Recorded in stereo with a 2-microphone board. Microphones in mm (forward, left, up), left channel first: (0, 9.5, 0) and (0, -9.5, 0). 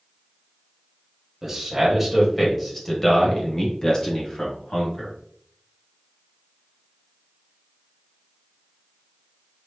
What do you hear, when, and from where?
1.4 s a man speaking: 10° right (ahead or behind), 1.3 m; by 5.1 s 50° left (ahead or behind), 1.9 m